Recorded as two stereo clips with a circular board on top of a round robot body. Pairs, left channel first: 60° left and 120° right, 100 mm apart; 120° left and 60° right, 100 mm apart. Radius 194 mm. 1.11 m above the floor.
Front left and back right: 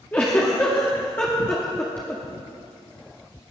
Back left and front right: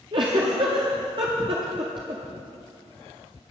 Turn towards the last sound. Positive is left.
turn(degrees=-15)